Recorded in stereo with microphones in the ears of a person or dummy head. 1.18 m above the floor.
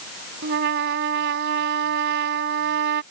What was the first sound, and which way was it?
A trumpet, 65° right (ahead or behind).